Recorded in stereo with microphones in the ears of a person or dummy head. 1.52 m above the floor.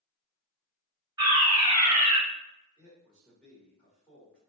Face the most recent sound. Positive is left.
turn(degrees=0)  # may be behind; listen again after turning